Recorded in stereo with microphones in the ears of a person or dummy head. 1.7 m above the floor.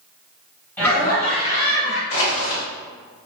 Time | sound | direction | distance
0.8 | laughter | 10° left (ahead or behind) | 1.4 m
2.1 | crushing | 40° left (ahead or behind) | 1.9 m